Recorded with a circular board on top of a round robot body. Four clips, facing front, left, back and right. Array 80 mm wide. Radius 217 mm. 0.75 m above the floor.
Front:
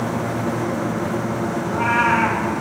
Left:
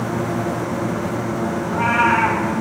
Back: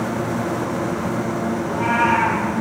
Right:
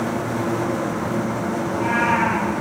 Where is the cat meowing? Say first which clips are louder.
Left 4 dB, even; 50° left, 4 m.